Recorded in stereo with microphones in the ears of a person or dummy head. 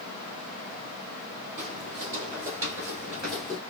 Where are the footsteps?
35° right (ahead or behind), 1.9 m; by 3.6 s centre (ahead or behind), 1.8 m.